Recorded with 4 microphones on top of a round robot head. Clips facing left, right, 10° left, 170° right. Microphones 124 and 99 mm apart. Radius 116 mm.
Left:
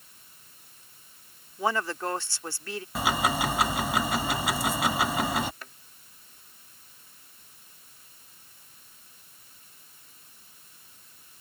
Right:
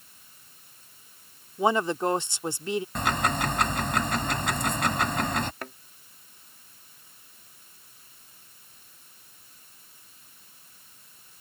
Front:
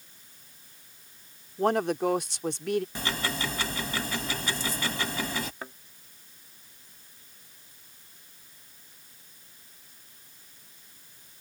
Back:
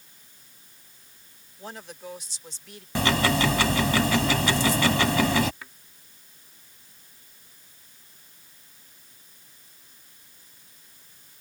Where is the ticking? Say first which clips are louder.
Left 5 dB, back 9 dB; 175° left.